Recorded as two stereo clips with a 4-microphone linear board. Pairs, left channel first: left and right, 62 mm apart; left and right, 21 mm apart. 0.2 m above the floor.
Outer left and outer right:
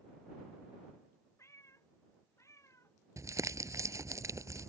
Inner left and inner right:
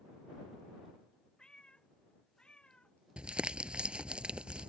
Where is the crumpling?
55° right (ahead or behind).